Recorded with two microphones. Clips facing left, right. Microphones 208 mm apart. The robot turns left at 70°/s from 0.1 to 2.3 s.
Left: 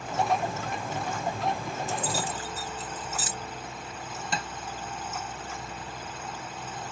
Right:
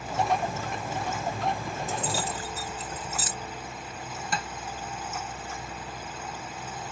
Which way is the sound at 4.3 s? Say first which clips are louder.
Right 1 dB; 25° left (ahead or behind).